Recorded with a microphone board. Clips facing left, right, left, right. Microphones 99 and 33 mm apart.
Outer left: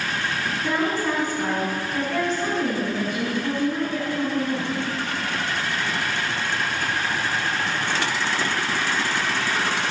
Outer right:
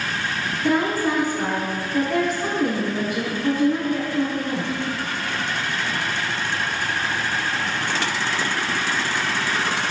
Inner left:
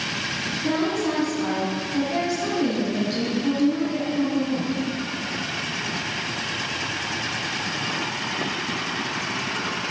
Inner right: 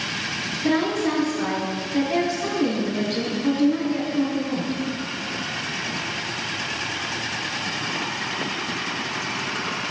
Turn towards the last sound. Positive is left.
turn(degrees=-5)  # may be behind; listen again after turning